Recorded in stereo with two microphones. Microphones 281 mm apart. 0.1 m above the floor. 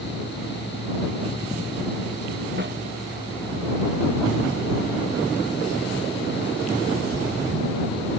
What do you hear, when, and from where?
2.6 s a snare drum: 40° right (ahead or behind)